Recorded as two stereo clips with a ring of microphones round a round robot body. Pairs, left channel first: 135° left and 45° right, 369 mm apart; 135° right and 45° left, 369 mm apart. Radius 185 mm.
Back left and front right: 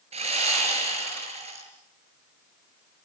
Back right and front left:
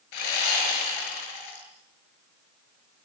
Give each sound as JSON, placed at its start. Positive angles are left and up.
{"t": 0.1, "sound": "sawing", "azimuth_deg": -120, "distance_m": 5.5}